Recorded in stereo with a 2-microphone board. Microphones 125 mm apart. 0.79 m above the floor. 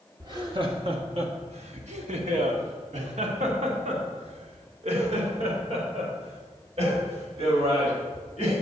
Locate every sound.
0.2 s laughter: 30° right (ahead or behind), 1.0 m; by 8.5 s 60° right (ahead or behind), 4.5 m